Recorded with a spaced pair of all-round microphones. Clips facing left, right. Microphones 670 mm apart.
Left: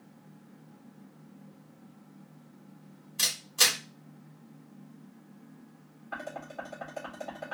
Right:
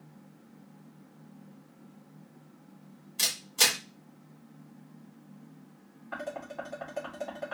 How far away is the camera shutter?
About 1.8 m.